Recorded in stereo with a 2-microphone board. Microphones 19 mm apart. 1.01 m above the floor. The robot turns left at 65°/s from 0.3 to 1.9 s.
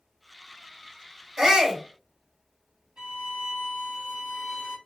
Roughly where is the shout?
Right.